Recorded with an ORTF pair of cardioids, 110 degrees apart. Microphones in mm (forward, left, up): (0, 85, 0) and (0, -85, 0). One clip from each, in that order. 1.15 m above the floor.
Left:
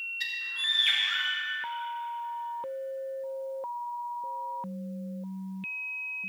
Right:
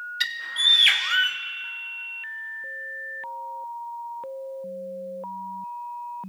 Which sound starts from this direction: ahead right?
A bird, at 0.2 s.